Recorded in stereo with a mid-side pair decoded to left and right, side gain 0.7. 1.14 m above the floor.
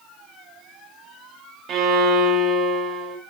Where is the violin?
45° right, 0.6 m.